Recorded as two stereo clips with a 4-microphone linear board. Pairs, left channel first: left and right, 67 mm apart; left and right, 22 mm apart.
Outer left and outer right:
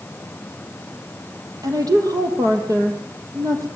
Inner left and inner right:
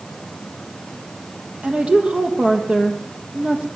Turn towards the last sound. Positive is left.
turn(degrees=-60)  # may be behind; listen again after turning